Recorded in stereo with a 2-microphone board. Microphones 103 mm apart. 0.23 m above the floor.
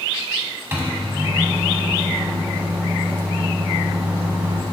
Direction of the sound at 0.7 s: 20° right (ahead or behind).